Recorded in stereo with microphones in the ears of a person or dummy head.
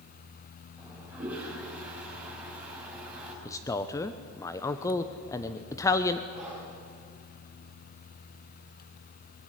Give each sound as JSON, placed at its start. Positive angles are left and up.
{"t": 0.8, "sound": "a toilet flushing", "side_deg": -10, "distance_m": 5.5}
{"t": 3.5, "sound": "a man speaking", "side_deg": 15, "distance_m": 0.9}
{"t": 6.3, "sound": "breathing", "side_deg": -5, "distance_m": 7.0}